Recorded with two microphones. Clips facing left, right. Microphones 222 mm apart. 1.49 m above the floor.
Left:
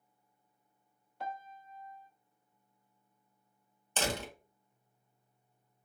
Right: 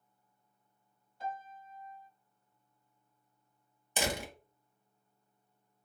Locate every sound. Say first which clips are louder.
1.2 s a piano: right 1 dB; 70° left (ahead or behind), 0.5 m
4.0 s a door slam: even; 10° right (ahead or behind), 1.0 m